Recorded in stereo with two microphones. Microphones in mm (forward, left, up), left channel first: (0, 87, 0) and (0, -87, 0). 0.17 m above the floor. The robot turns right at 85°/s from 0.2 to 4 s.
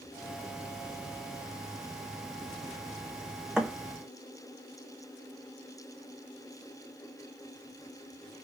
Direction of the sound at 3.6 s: 5° right (ahead or behind).